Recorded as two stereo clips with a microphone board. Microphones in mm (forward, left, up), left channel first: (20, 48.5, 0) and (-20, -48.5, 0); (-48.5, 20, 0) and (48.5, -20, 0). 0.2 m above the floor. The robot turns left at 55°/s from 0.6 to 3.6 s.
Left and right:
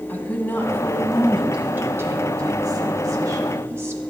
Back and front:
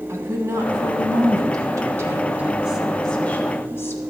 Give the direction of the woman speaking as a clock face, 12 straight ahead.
12 o'clock.